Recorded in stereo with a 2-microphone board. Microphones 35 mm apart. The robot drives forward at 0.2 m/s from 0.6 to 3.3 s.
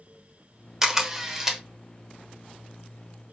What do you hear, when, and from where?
0.8 s a camera shutter: 15° right (ahead or behind), 0.8 m; by 1.6 s 10° right (ahead or behind), 0.9 m